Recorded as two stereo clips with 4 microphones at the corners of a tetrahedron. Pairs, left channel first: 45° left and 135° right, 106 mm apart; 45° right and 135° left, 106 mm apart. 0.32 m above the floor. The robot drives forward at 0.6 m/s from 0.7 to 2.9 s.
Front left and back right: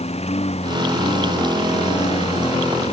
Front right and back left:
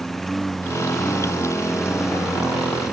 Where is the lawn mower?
45° left; by 2.9 s 50° left.